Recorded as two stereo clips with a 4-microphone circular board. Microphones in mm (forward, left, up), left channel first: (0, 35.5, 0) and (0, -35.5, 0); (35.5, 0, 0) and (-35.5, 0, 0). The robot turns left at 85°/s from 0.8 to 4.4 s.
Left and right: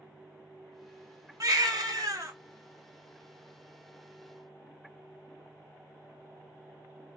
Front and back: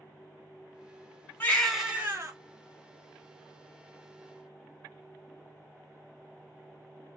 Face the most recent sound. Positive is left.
turn(degrees=45)